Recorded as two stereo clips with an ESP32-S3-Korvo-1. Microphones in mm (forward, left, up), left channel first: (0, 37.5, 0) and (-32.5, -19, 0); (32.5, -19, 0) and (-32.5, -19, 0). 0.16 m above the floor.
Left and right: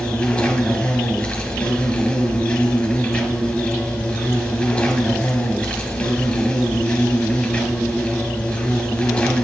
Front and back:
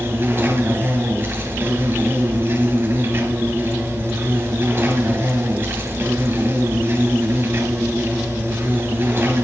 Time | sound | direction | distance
0.0 | an insect | 130° left | 1.8 m